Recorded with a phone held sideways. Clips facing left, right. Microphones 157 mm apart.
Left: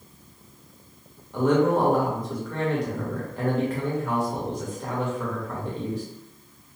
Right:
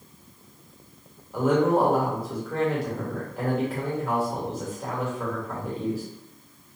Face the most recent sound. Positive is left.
turn(degrees=-5)  # may be behind; listen again after turning